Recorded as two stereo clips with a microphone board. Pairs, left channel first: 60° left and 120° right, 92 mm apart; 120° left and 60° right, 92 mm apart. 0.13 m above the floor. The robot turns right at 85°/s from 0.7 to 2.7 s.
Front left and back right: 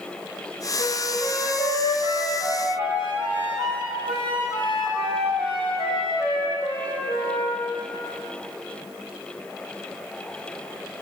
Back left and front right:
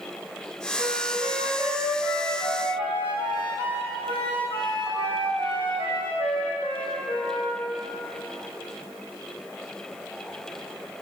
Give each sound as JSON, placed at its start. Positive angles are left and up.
{"t": 0.8, "sound": "a flute", "azimuth_deg": -75, "distance_m": 3.5}